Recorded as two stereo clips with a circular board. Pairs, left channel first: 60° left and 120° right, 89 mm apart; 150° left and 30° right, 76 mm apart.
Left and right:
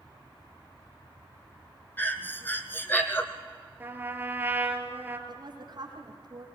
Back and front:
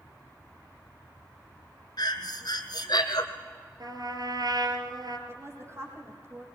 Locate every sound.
2.0 s breathing: 125° left, 1.8 m
3.8 s a trumpet: 50° right, 3 m
5.3 s a woman speaking: 80° right, 6 m